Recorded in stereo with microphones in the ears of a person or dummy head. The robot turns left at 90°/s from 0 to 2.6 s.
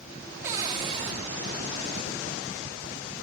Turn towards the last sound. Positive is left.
turn(degrees=135)